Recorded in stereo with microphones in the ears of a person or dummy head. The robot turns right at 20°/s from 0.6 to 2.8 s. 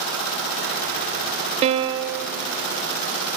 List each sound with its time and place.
1.6 s a piano: 40° right (ahead or behind), 0.8 m; by 2.2 s 25° right (ahead or behind), 0.8 m